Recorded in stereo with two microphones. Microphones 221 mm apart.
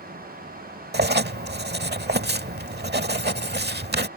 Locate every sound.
0.9 s writing: 50° right (ahead or behind)